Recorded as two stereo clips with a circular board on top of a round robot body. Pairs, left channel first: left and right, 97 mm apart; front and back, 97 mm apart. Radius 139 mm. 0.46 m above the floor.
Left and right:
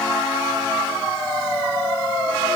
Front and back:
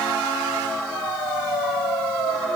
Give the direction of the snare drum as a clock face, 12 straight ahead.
I don't hear a snare drum.